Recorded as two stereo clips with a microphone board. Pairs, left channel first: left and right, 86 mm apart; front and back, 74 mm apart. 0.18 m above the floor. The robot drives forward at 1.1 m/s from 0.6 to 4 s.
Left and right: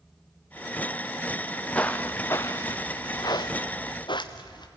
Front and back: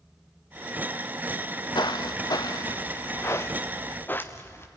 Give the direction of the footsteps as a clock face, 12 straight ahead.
12 o'clock.